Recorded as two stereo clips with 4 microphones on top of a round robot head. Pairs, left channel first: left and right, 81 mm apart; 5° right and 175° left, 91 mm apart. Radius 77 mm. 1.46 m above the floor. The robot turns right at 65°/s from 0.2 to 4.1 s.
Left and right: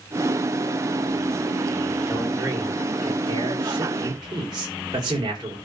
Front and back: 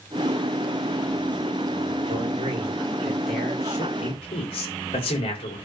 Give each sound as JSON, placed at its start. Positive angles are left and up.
{"t": 2.1, "sound": "a man speaking", "azimuth_deg": -170, "distance_m": 5.0}